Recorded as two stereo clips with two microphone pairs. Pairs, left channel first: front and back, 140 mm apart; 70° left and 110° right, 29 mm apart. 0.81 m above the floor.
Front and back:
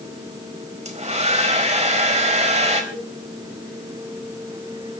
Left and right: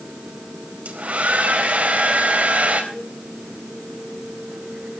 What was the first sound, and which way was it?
A hair dryer, 140° right.